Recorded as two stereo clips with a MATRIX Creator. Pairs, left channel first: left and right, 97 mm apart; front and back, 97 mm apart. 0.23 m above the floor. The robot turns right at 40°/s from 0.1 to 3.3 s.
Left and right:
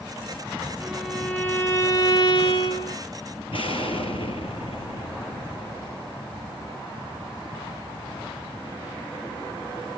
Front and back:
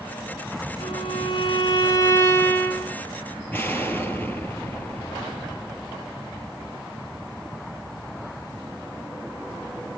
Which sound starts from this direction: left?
An explosion, at 3.5 s.